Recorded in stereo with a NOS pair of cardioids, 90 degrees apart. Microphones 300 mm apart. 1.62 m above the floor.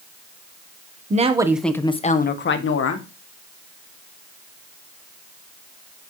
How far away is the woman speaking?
About 1.1 m.